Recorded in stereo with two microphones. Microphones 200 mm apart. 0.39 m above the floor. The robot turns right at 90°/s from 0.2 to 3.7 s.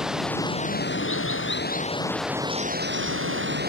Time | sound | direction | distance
0.0 | running water | 5° right | ?